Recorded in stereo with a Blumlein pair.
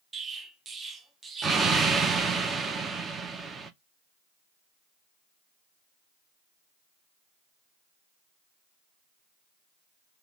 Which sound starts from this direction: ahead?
An explosion, at 0.1 s.